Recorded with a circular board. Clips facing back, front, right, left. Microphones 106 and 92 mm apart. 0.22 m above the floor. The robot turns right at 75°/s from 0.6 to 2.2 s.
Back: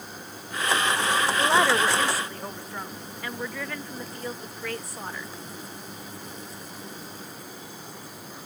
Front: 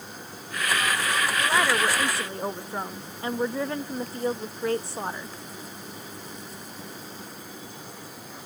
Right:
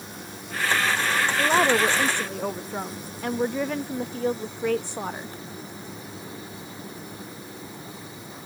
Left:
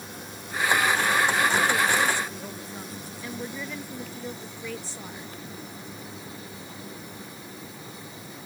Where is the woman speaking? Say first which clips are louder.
Back 2 dB, right 3 dB; 120° right; by 5.3 s 60° right.